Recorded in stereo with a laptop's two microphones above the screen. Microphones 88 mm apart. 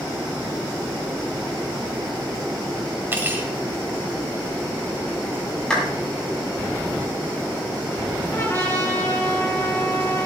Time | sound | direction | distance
3.1 | cutlery clinking | 25° right (ahead or behind) | 2.5 m
5.7 | a clap | 10° left (ahead or behind) | 7 m
8.3 | a trumpet | 35° left (ahead or behind) | 4 m